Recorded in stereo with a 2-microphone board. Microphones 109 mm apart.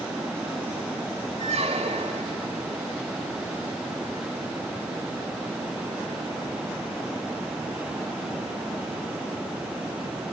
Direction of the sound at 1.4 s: 70° right (ahead or behind).